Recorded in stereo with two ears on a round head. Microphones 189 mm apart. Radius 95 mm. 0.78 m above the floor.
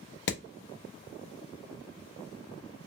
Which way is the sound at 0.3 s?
55° left (ahead or behind).